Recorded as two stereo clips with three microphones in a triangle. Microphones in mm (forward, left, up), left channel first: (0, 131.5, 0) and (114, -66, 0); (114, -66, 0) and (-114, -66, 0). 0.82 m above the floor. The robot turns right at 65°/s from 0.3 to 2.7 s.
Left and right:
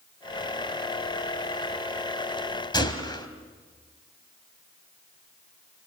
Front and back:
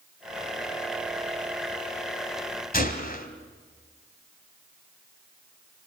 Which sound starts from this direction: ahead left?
A gunshot, at 2.7 s.